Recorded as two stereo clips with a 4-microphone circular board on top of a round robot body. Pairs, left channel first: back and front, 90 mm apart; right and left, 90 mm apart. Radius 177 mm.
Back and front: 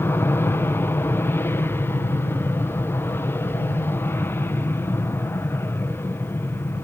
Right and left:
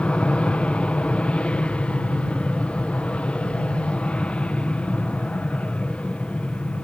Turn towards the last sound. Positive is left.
turn(degrees=-155)